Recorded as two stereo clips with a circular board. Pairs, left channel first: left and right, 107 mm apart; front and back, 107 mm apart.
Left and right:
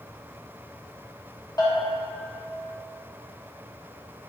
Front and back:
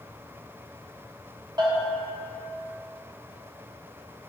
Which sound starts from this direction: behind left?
A bell, at 1.6 s.